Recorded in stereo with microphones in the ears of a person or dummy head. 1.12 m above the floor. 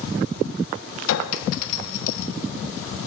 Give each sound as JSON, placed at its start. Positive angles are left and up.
{"t": 1.1, "sound": "a clink", "side_deg": 75, "distance_m": 0.6}